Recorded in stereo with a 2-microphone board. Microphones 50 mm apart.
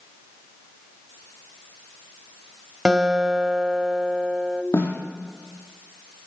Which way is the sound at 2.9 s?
15° right (ahead or behind).